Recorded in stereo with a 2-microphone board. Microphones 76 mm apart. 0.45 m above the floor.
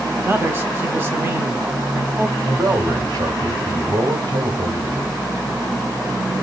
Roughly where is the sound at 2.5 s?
Right.